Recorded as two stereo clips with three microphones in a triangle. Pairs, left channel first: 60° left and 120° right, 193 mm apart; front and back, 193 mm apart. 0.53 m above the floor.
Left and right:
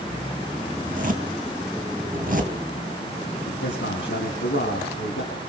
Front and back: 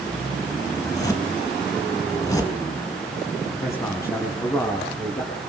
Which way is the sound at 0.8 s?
75° right.